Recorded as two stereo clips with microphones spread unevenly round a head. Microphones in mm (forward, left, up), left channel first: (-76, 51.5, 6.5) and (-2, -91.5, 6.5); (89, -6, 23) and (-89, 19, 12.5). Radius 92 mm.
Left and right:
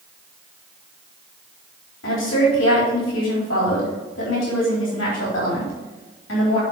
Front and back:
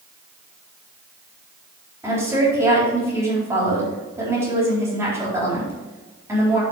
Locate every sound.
2.0 s a woman speaking: 95° left, 4 m